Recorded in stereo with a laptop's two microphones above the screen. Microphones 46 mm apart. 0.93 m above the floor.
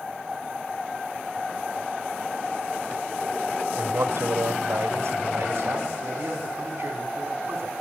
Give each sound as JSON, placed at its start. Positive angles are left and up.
{"t": 3.8, "sound": "a man speaking", "side_deg": -85, "distance_m": 3.0}